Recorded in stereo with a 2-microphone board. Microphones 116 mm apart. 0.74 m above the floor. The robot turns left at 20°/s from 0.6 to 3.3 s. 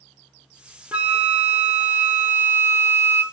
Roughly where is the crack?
No crack in this recording.